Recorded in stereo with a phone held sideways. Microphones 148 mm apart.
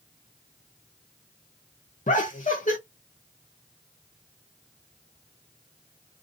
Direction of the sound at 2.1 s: 60° left (ahead or behind).